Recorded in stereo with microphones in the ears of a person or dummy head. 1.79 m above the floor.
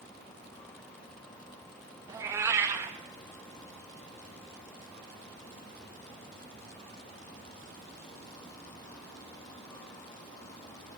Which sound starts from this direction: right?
A cat meowing, at 2.1 s.